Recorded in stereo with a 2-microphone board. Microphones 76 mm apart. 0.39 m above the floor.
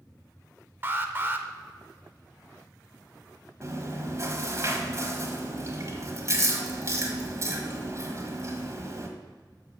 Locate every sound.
0.8 s an alarm: 30° right (ahead or behind), 0.8 m
3.6 s chewing: 40° right (ahead or behind), 1.4 m